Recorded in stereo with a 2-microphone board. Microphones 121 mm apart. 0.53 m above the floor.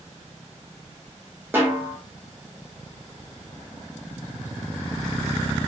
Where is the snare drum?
15° right (ahead or behind), 1.1 m.